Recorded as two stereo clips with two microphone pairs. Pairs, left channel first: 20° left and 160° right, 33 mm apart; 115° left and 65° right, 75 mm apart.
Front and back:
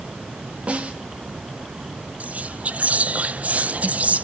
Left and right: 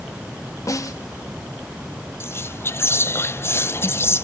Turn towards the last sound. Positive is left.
turn(degrees=165)